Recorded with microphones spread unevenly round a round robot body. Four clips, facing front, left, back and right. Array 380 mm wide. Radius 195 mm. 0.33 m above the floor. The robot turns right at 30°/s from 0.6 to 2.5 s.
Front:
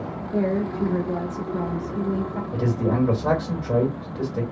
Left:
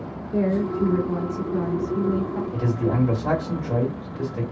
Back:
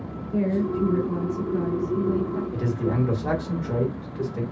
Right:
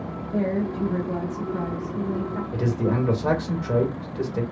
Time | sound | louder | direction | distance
0.3 | a woman speaking | left 2 dB, even | 70° left | 1.4 m
2.5 | a man speaking | right 1 dB, front 6 dB | 70° right | 1.8 m